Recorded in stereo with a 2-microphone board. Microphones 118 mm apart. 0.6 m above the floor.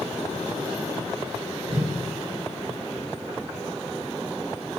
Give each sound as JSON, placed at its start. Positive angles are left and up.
{"t": 1.7, "sound": "a whoosh", "side_deg": -55, "distance_m": 2.0}